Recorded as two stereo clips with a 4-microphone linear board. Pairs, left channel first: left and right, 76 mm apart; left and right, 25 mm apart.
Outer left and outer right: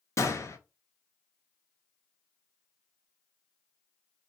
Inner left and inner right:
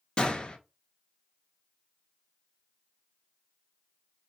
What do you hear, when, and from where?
0.2 s a gunshot: 40° left (ahead or behind), 0.6 m